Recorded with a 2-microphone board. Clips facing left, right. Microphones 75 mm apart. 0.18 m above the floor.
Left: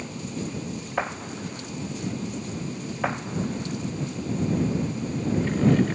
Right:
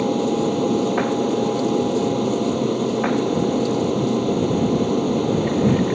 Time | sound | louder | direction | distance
0.0 | an aircraft | right 14 dB | 70° right (ahead or behind) | ?